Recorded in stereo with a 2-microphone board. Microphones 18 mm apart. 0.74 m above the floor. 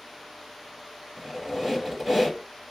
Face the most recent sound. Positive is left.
turn(degrees=-15)  # may be behind; listen again after turning